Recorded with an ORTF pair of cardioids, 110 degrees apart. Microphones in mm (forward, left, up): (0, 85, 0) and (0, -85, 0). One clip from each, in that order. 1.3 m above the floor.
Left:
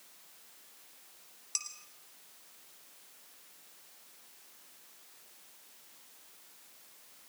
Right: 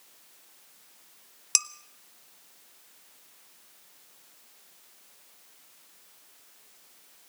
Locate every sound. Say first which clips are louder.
1.6 s dishes clattering: right 12 dB; 65° right, 0.8 m